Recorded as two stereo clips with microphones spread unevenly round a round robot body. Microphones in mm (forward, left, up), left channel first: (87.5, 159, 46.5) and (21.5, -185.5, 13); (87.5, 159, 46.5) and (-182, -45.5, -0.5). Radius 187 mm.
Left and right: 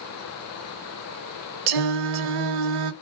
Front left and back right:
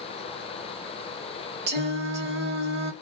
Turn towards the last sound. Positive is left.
turn(degrees=-85)